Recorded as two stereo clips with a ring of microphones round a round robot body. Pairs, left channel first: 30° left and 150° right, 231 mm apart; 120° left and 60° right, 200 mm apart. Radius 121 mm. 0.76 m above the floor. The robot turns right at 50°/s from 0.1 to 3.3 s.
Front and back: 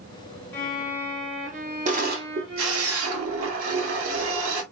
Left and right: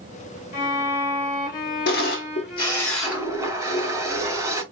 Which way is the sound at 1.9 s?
155° left.